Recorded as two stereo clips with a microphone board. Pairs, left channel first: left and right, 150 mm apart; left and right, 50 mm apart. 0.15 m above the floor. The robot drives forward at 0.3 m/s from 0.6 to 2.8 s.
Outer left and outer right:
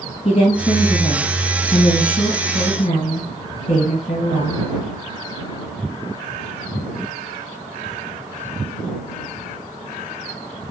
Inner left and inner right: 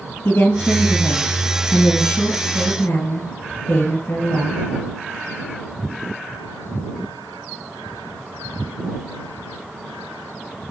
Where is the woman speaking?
50° left (ahead or behind), 3 m; by 4.6 s 55° left (ahead or behind), 3 m.